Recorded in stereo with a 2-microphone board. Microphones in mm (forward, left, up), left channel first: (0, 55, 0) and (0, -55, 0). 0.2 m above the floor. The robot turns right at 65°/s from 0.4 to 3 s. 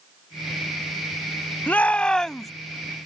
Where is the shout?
15° left (ahead or behind); by 2.5 s centre (ahead or behind).